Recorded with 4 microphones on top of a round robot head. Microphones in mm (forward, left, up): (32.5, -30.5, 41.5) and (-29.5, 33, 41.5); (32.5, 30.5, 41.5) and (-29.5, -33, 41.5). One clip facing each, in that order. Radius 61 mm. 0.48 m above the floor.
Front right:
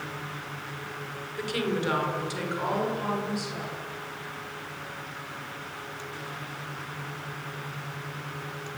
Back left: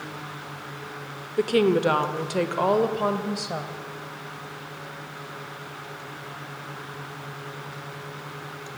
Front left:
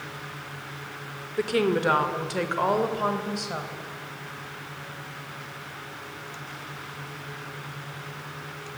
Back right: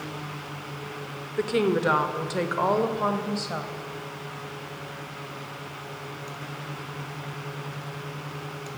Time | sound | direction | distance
1.4 | a woman speaking | 135° left | 1.7 m